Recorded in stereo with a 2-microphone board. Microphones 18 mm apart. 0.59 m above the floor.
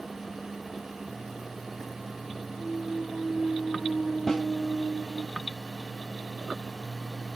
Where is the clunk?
35° right (ahead or behind), 2.5 m.